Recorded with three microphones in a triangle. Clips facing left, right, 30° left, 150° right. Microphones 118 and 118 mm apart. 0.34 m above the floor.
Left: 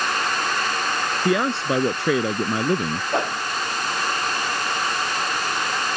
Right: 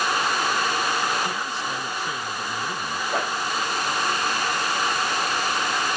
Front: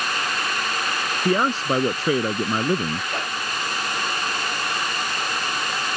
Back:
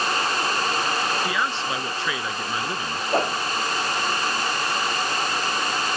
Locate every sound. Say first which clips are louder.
1.2 s a man speaking: left 8 dB, front 5 dB; 75° left
3.1 s a whoosh: left 2 dB, back 6 dB; 160° left